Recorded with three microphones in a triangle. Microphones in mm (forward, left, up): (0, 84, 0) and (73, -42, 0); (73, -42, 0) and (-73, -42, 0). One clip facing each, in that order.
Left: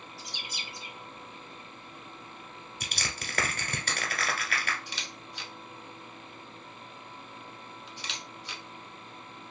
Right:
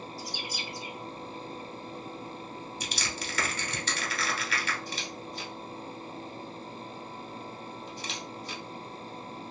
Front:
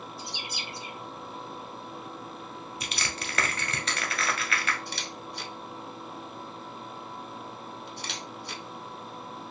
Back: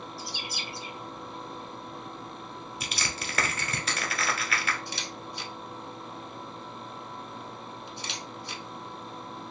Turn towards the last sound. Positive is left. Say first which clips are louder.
# right 6 dB, even
turn(degrees=-20)